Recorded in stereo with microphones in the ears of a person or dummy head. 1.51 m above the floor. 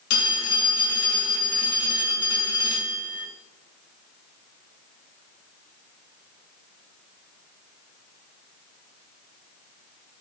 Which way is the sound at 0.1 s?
65° left (ahead or behind).